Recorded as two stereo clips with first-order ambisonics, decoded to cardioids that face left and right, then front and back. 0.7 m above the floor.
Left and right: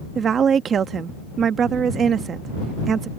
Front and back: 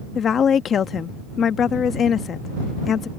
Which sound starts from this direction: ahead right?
A woman speaking, at 0.1 s.